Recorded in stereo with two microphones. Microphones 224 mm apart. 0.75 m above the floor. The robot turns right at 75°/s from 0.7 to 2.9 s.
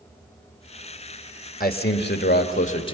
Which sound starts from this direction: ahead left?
A man speaking, at 1.6 s.